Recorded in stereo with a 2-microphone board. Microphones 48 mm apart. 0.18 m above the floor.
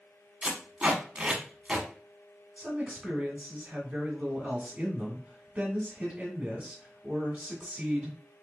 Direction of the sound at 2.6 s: 30° right (ahead or behind).